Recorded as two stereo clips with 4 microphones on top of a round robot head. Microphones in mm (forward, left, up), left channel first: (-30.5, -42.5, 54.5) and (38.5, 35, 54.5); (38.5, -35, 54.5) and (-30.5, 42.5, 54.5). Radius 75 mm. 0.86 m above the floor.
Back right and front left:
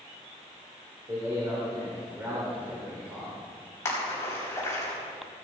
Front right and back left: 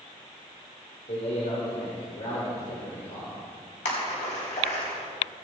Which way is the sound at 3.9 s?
65° right.